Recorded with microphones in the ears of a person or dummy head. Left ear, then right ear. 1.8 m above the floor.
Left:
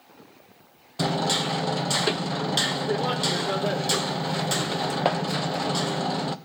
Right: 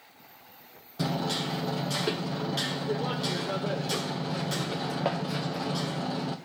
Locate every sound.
1.0 s hammering: 30° left (ahead or behind), 0.9 m